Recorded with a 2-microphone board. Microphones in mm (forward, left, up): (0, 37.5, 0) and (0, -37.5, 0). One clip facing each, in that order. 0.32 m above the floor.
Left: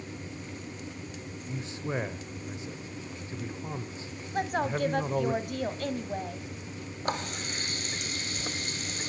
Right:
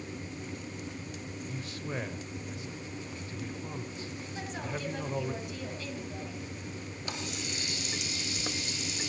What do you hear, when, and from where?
1.5 s a man speaking: 25° left (ahead or behind), 0.9 m
4.3 s a woman speaking: 55° left (ahead or behind), 1.7 m
7.0 s a running tap: 45° left (ahead or behind), 1.1 m